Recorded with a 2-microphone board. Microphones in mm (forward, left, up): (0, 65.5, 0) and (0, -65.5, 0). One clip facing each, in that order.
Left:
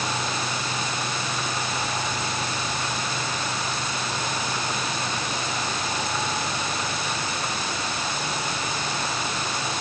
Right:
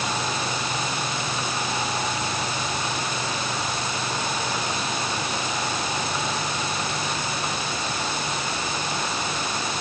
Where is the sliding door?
I don't hear a sliding door.